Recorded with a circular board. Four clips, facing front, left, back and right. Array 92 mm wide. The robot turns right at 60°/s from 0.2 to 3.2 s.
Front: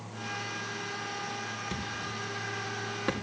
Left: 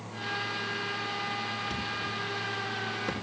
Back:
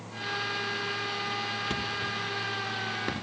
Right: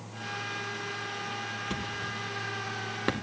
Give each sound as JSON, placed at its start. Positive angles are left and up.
{"t": 1.7, "sound": "a thud", "azimuth_deg": -170, "distance_m": 2.0}